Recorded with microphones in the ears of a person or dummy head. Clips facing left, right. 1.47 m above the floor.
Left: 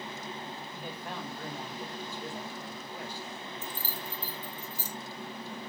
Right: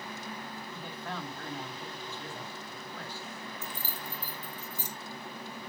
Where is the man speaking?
15° left (ahead or behind), 2.5 m.